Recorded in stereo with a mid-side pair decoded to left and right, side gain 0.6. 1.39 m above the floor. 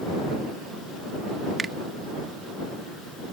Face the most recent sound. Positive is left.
turn(degrees=-30)